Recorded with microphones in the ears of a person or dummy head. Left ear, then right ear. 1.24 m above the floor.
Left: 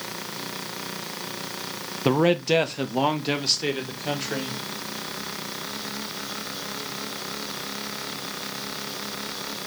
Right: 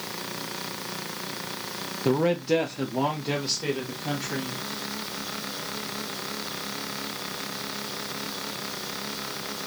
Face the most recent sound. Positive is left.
turn(degrees=25)  # may be behind; listen again after turning